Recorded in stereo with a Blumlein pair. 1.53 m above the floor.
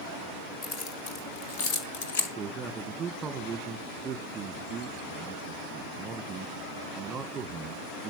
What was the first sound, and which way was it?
Keys jangling, 35° left.